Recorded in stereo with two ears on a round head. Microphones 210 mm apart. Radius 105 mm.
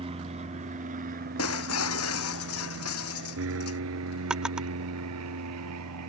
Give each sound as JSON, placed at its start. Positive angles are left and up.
{"t": 0.0, "sound": "an aircraft", "side_deg": -25}
{"t": 1.4, "sound": "breaking glass", "side_deg": 65}
{"t": 4.3, "sound": "a drawer", "side_deg": -5}